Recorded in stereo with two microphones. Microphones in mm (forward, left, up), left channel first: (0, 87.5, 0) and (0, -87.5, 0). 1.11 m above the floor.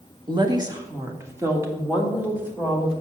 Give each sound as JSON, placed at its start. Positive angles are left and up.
{"t": 0.3, "sound": "a woman speaking", "side_deg": -25, "distance_m": 1.2}